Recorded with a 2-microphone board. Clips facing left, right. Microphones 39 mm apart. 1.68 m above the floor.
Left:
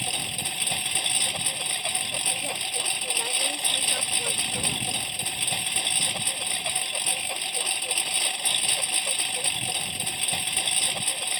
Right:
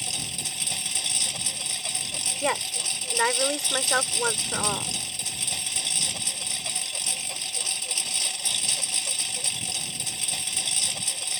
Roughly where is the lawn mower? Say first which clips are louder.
Left 3 dB; left.